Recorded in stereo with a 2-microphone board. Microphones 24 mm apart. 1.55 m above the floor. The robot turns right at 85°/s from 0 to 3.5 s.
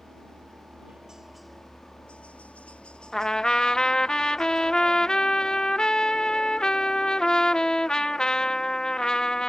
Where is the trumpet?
40° left; by 9.5 s 75° left.